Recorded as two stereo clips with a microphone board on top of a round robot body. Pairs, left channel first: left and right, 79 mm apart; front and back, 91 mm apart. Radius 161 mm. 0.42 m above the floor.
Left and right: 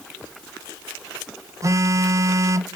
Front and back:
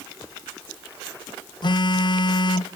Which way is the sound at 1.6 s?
40° right.